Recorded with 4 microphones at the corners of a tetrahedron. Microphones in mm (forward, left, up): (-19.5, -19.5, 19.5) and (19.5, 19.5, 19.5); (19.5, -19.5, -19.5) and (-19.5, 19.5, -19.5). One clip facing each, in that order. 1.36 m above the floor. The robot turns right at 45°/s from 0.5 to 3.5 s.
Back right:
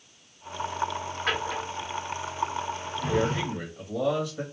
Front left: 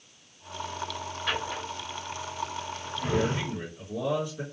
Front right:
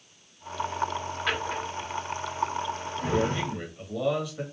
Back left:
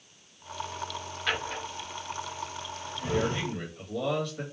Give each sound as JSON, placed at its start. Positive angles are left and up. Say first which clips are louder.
{"t": 1.3, "sound": "a drawer", "louder": "back right 2 dB, front right 1 dB", "azimuth_deg": -130, "distance_m": 1.6}
{"t": 3.1, "sound": "a man speaking", "louder": "back right 1 dB, front right 2 dB", "azimuth_deg": -150, "distance_m": 2.0}